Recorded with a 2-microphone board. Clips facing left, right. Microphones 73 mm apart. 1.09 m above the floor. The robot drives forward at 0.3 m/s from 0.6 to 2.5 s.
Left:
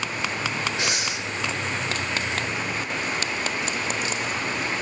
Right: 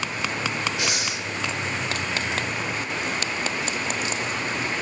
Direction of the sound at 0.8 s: 30° left (ahead or behind).